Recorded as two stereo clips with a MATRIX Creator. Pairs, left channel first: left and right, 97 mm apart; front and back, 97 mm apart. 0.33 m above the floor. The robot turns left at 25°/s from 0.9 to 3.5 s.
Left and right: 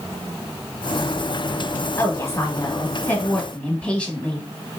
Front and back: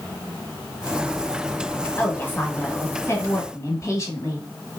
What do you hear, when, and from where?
2.0 s a woman speaking: 60° left, 1.0 m; by 4.4 s 20° left, 1.0 m